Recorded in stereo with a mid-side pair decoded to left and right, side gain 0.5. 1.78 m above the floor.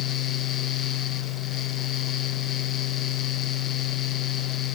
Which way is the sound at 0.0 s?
60° left.